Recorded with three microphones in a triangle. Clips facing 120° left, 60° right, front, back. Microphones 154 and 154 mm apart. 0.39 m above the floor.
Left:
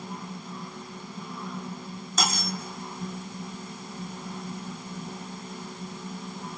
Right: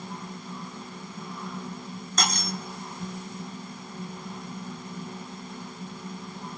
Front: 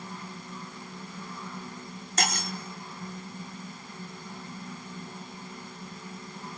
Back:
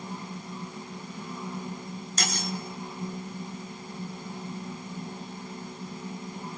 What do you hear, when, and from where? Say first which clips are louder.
2.2 s cutlery clinking: left 1 dB, front 3 dB; 35° left, 1.8 m